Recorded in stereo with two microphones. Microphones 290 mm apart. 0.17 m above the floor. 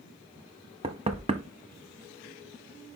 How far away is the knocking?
About 0.7 m.